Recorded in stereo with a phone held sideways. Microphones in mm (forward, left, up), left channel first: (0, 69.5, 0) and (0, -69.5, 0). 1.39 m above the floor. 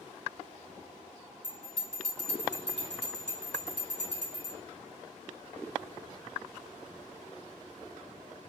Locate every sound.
1.4 s a bell: 50° left (ahead or behind), 1.4 m